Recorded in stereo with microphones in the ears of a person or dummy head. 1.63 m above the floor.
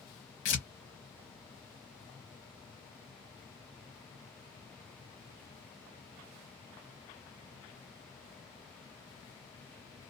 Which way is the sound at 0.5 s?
35° left (ahead or behind).